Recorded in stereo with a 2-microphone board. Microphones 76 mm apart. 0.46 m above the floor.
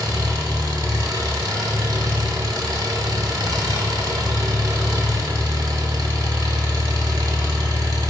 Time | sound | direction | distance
0.0 | an engine running | 60° right (ahead or behind) | 0.9 m